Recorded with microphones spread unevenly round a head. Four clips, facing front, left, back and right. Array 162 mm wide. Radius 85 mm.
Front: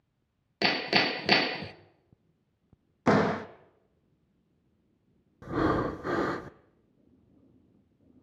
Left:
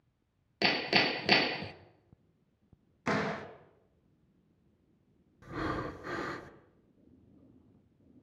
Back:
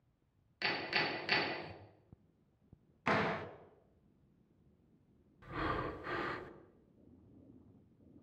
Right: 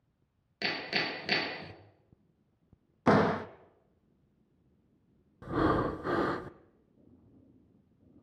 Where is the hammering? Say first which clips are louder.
Left 5 dB, front 10 dB; 20° left, 1.7 m.